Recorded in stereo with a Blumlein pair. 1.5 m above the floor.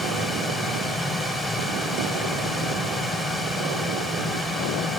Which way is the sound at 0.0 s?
5° left.